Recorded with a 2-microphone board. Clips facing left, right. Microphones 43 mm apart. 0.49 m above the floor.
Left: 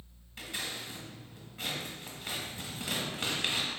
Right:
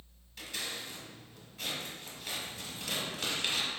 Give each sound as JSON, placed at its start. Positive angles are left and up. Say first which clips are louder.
{"t": 0.4, "sound": "scissors", "louder": "left 1 dB", "side_deg": 30, "distance_m": 1.2}